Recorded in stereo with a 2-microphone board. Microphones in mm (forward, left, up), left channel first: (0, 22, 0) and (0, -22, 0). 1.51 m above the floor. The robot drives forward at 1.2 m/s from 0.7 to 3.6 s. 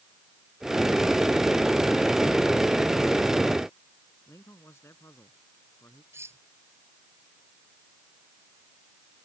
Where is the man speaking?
80° left.